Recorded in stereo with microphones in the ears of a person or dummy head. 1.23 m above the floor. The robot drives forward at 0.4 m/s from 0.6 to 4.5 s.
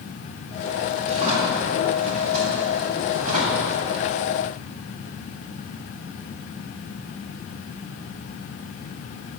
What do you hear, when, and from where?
1.0 s a drawer: 35° right (ahead or behind), 4.5 m; by 3.7 s 45° right (ahead or behind), 3.5 m